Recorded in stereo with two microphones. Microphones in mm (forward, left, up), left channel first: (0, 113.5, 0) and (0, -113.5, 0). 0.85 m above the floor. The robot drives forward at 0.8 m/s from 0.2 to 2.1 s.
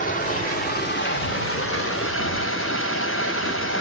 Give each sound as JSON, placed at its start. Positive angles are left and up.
{"t": 0.0, "sound": "running water", "side_deg": 35, "distance_m": 1.7}